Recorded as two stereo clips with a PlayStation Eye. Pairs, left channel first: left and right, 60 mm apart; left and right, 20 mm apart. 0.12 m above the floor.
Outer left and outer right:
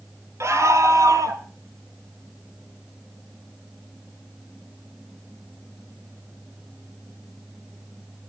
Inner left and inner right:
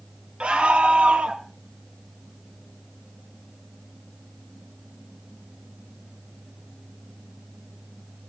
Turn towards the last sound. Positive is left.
turn(degrees=-70)  # may be behind; listen again after turning